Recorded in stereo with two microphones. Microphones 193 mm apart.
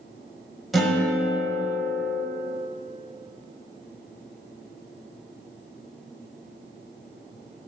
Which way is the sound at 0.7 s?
Centre (ahead or behind).